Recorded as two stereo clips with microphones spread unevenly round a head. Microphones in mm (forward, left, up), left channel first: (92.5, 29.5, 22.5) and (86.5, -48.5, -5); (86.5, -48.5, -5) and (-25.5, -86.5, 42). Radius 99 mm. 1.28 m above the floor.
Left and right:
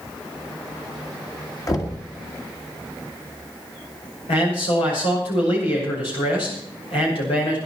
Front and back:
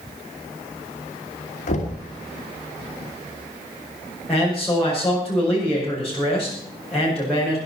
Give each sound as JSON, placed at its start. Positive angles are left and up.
{"t": 1.7, "sound": "knocking", "azimuth_deg": 40, "distance_m": 2.0}
{"t": 4.3, "sound": "a man speaking", "azimuth_deg": 105, "distance_m": 6.0}